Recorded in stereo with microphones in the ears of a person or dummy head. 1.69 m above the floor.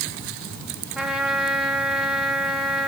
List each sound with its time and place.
0.9 s a trumpet: 10° right (ahead or behind), 3.5 m